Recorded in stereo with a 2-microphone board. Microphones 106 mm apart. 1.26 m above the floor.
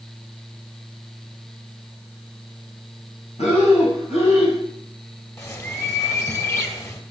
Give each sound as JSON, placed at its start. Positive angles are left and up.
{"t": 3.4, "sound": "breathing", "side_deg": 85, "distance_m": 6.0}
{"t": 5.4, "sound": "a bird", "side_deg": 30, "distance_m": 2.5}